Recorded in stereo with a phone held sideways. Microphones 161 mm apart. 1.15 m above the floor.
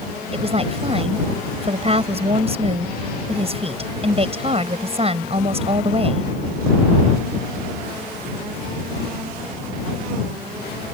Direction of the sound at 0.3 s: 40° right (ahead or behind).